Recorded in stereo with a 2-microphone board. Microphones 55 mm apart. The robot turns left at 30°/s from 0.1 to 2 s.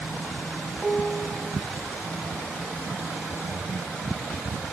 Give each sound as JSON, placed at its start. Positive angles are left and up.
{"t": 0.8, "sound": "a piano", "side_deg": -5, "distance_m": 0.9}